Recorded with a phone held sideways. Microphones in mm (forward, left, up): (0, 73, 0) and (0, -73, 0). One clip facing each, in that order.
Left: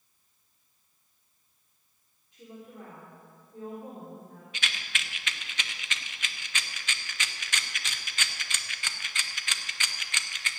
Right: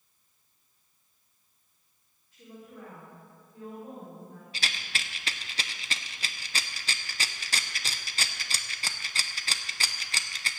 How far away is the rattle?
About 0.6 m.